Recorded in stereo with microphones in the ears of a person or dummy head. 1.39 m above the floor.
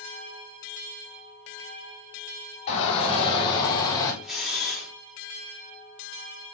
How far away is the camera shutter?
About 3.5 m.